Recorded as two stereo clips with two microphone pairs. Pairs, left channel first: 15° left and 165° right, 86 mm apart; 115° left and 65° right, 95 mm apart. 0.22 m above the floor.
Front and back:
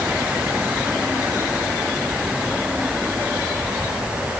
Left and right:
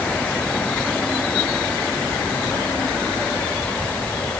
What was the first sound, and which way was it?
Only background noise.